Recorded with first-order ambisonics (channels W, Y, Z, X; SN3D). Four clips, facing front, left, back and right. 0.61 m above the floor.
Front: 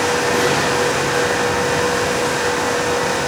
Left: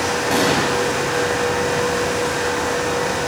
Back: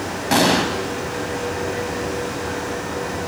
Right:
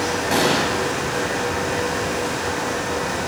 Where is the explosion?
Straight behind, 1.2 m.